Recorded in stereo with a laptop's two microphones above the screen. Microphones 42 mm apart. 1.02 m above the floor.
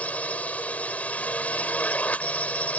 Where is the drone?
35° left (ahead or behind).